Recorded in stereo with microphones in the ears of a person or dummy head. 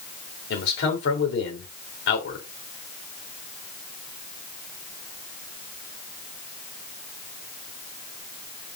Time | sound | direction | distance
0.5 | a man speaking | 70° left (ahead or behind) | 3.5 m